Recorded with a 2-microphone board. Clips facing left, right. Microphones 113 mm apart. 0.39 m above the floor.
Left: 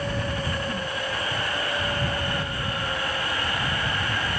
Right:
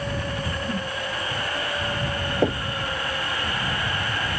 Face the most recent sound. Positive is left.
turn(degrees=-85)